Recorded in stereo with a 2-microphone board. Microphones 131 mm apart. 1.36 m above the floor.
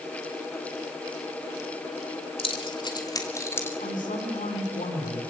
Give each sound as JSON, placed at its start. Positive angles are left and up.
{"t": 2.4, "sound": "keys jangling", "side_deg": 45, "distance_m": 3.0}
{"t": 3.8, "sound": "a man speaking", "side_deg": 85, "distance_m": 5.0}